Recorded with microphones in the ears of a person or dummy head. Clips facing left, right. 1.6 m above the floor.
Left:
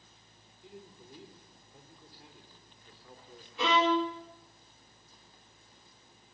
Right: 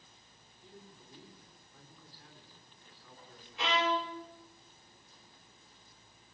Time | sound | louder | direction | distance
0.6 | a man speaking | left 5 dB | 20° left (ahead or behind) | 4 m
3.6 | a violin | left 6 dB | 80° left | 3 m